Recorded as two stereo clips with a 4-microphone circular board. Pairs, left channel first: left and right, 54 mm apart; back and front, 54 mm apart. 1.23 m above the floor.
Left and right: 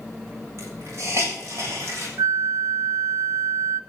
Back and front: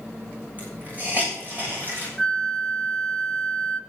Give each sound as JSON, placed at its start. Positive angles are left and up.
{"t": 0.6, "sound": "a hiss", "azimuth_deg": -55, "distance_m": 7.0}
{"t": 2.2, "sound": "a flute", "azimuth_deg": -100, "distance_m": 0.8}